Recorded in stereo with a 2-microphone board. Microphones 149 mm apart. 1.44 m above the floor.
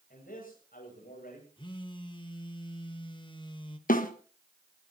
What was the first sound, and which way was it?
A man speaking, 75° left (ahead or behind).